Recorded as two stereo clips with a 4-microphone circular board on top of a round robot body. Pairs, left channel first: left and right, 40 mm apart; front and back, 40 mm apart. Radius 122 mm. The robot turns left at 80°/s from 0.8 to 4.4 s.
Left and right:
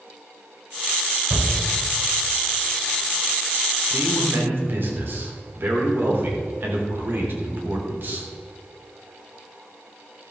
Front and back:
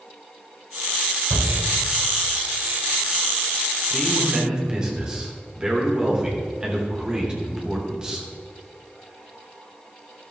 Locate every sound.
1.3 s a shout: 150° right, 3.5 m; by 1.5 s 165° right, 3.5 m
3.9 s a man speaking: 75° right, 3 m; by 8.3 s 115° right, 3 m